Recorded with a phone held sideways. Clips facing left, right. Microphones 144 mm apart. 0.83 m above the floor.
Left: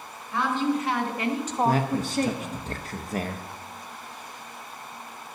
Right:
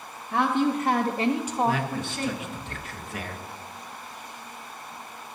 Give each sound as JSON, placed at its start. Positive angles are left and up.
{"t": 0.3, "sound": "a woman speaking", "side_deg": -65, "distance_m": 1.6}
{"t": 1.6, "sound": "a man speaking", "side_deg": 40, "distance_m": 0.7}